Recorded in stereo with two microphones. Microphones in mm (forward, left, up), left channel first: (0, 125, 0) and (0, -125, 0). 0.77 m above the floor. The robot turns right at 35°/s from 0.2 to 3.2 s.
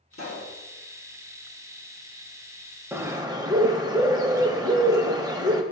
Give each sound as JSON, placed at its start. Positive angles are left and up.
{"t": 0.1, "sound": "a pop", "side_deg": 60, "distance_m": 1.3}
{"t": 2.9, "sound": "a bird", "side_deg": -10, "distance_m": 0.6}